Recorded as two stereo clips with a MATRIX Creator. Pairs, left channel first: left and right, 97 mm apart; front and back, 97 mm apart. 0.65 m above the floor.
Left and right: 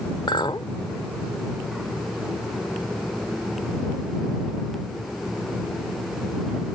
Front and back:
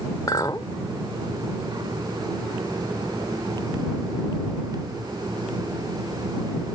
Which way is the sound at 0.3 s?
50° left.